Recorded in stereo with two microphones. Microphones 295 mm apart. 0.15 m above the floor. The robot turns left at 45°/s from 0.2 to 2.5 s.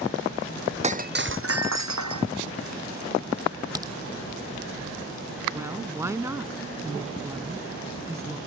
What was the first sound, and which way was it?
Breaking glass, 20° right.